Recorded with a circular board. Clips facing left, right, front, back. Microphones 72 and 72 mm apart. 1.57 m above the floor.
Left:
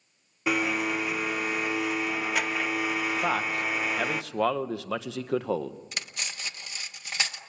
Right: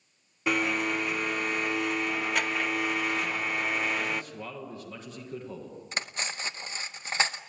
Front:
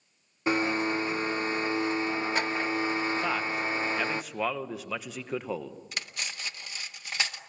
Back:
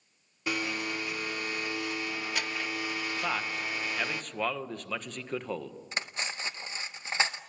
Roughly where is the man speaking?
Left.